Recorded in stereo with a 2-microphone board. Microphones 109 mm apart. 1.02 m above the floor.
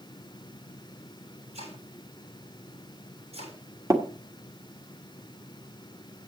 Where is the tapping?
30° right (ahead or behind), 1.5 m.